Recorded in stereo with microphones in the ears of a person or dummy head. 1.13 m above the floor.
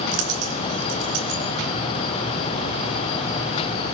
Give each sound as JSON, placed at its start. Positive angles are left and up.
{"t": 0.1, "sound": "a dropped coin", "side_deg": -70, "distance_m": 2.5}